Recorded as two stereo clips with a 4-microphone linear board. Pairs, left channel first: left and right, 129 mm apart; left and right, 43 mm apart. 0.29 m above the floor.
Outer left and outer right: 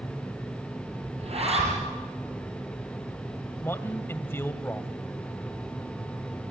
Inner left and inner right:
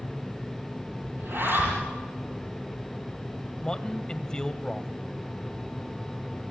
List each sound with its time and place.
1.2 s a zipper: 55° right (ahead or behind), 8.5 m
3.6 s a man speaking: 20° left (ahead or behind), 1.1 m